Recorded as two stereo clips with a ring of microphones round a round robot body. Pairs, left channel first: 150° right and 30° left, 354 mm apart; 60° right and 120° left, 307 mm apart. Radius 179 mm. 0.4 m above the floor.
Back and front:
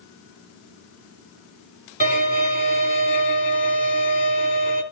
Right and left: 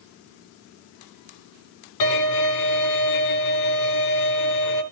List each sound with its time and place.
2.0 s a violin: 85° right, 3.5 m